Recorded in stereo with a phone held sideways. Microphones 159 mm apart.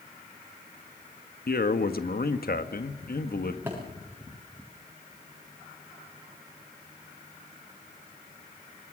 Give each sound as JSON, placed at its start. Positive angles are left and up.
{"t": 1.5, "sound": "a man speaking", "side_deg": 70, "distance_m": 1.5}
{"t": 3.7, "sound": "a thud", "side_deg": -15, "distance_m": 7.0}